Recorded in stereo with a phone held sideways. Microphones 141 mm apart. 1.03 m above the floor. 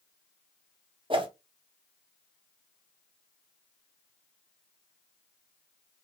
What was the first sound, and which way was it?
A whoosh, 35° right (ahead or behind).